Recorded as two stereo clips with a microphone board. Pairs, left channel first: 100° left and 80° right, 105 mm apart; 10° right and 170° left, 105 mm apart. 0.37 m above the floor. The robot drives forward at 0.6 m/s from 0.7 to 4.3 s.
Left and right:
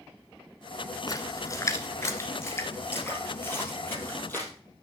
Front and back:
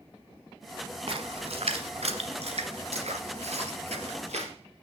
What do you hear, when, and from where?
1.1 s a splash: 150° left, 1.0 m; by 4.5 s 170° left, 3 m